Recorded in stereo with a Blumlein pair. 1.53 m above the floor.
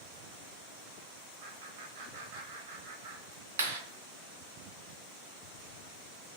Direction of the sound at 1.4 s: 55° right.